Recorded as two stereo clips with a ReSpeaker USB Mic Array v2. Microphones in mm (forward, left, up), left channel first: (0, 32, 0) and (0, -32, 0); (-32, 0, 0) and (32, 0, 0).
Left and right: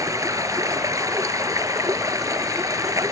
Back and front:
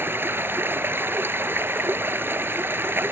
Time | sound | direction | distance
0.0 | running water | 55° right | ?